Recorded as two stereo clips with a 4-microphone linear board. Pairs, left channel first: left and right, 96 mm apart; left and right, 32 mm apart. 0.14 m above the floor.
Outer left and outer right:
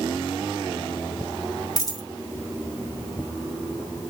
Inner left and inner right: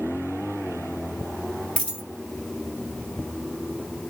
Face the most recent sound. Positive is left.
turn(degrees=45)  # may be behind; listen again after turning